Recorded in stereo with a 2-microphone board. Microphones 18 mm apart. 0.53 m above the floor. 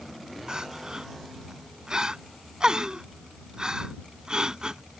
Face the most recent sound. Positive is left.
turn(degrees=-50)  # may be behind; listen again after turning